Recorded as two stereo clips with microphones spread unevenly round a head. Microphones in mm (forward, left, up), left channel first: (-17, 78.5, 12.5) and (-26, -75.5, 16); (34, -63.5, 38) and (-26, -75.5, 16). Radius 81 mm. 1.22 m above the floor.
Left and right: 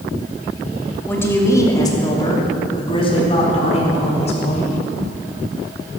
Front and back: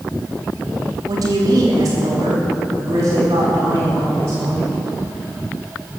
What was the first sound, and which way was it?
A woman speaking, 165° left.